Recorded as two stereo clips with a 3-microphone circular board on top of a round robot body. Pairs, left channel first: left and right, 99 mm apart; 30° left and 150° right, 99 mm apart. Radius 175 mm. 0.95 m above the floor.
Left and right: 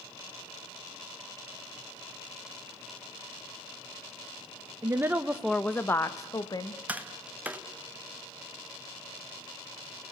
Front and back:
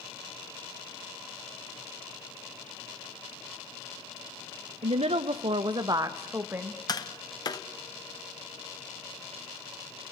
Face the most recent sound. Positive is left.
turn(degrees=-15)